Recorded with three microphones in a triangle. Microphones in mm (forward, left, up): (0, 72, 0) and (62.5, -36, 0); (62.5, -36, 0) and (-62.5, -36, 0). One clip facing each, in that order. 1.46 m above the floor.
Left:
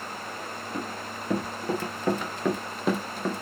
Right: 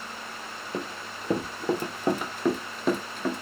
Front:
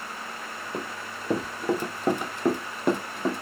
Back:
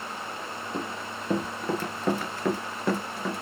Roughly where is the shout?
No shout in this recording.